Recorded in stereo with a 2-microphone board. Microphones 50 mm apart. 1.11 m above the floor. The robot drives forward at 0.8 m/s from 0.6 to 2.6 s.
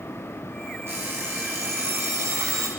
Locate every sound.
0.9 s an alarm clock: 55° right (ahead or behind), 6 m; by 2.7 s 65° right (ahead or behind), 5 m